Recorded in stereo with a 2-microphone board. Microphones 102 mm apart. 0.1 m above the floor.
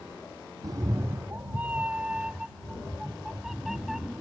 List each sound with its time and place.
0.6 s a cat meowing: 45° right (ahead or behind); by 4.2 s 5° right (ahead or behind)